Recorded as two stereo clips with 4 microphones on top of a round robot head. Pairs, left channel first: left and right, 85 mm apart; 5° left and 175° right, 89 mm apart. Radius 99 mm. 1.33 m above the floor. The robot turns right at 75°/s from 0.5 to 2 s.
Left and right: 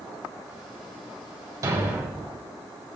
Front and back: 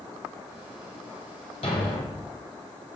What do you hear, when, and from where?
1.6 s a thud: 45° right, 1.9 m; by 3.0 s 15° right, 1.9 m